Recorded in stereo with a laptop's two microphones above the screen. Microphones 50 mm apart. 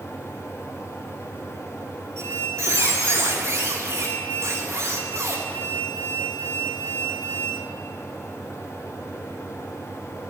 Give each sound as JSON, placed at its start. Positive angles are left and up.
{"t": 0.0, "sound": "a fan", "side_deg": 70, "distance_m": 2.5}
{"t": 2.2, "sound": "a squeak", "side_deg": -75, "distance_m": 1.9}